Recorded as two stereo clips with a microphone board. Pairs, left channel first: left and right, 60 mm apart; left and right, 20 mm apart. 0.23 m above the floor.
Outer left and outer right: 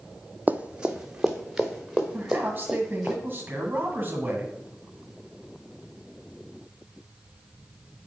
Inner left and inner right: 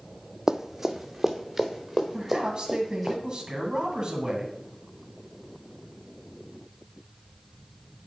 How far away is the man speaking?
About 1.7 m.